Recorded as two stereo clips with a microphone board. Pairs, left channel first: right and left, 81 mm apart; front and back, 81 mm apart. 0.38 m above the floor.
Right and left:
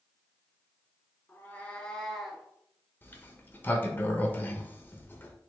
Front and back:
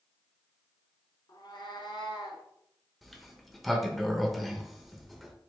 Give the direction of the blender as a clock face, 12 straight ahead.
No blender in this recording.